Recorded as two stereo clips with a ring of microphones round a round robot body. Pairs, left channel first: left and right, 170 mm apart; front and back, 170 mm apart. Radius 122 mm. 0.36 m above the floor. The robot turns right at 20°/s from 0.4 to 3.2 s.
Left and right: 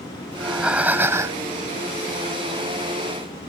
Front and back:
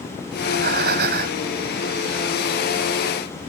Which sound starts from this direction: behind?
Breathing, at 0.3 s.